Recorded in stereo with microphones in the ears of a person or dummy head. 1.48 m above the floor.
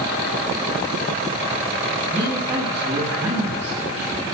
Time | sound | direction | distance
2.1 | a man speaking | 25° right (ahead or behind) | 8.5 m